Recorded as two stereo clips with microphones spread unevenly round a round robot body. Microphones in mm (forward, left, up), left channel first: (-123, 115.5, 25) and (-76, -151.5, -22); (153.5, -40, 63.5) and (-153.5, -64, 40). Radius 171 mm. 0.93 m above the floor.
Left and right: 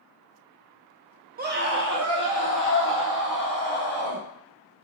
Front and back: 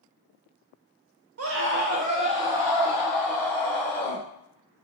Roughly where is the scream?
Behind right.